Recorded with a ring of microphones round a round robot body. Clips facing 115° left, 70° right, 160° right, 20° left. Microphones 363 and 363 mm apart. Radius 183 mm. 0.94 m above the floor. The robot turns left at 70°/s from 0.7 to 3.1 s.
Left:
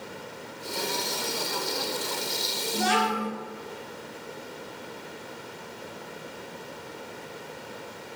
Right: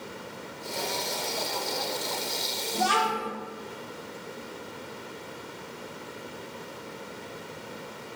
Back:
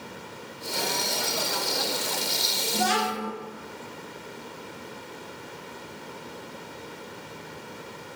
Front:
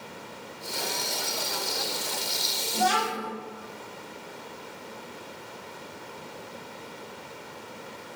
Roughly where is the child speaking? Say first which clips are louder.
Left 2 dB, back 1 dB; behind.